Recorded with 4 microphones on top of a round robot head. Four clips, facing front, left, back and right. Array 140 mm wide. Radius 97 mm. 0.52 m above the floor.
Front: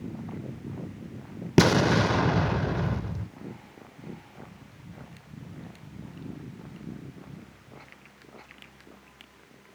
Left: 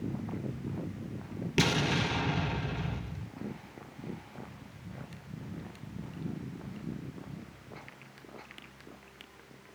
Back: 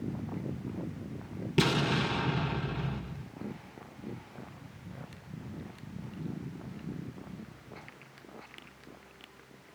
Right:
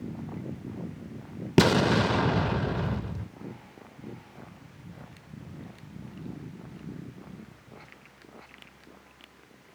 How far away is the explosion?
About 0.5 m.